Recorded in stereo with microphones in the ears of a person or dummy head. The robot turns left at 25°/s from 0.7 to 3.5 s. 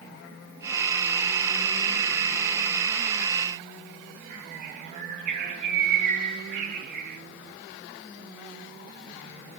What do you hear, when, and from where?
4.3 s a bird: 45° right (ahead or behind), 9.5 m